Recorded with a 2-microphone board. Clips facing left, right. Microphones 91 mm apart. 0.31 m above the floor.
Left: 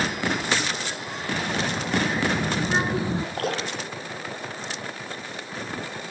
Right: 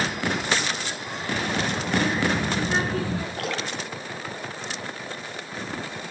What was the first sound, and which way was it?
A child speaking, 5° left (ahead or behind).